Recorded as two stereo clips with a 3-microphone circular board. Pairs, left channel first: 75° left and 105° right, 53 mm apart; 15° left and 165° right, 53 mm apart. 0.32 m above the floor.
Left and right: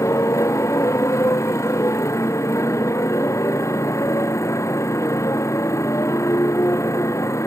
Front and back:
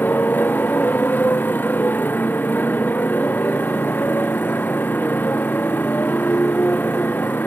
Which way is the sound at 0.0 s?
65° left.